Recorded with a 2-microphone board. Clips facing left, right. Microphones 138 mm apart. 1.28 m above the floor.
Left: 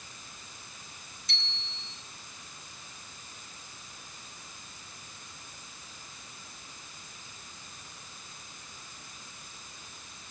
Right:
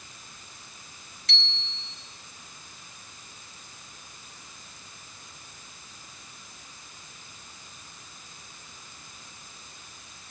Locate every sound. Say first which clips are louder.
1.3 s a bicycle bell: right 5 dB; 80° right, 4.5 m